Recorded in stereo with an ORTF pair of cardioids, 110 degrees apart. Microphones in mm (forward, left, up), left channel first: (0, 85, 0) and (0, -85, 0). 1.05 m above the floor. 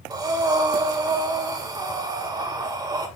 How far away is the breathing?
About 1.8 m.